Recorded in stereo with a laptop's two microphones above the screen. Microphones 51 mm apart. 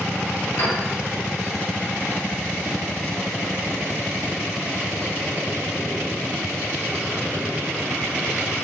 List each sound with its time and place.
0.6 s a piano: 55° left (ahead or behind), 1.6 m